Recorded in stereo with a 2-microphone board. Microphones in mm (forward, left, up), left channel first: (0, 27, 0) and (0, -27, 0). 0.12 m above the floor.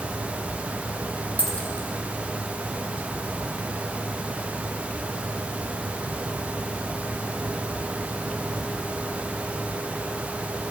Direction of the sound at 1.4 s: 25° left (ahead or behind).